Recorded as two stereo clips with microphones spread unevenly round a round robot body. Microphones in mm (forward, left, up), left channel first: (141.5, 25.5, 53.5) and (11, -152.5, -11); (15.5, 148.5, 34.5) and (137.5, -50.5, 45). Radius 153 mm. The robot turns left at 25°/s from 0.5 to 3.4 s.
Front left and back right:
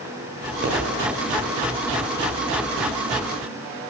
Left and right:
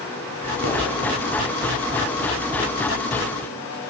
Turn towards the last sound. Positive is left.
turn(degrees=-165)